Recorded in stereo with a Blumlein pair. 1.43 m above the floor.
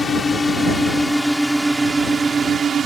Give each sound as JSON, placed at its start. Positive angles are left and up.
{"t": 0.0, "sound": "a drone", "azimuth_deg": 15}